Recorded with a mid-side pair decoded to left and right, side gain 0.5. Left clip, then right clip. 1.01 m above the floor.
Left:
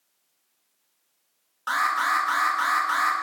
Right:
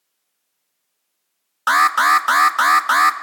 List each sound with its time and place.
1.7 s an alarm: 70° right, 0.9 m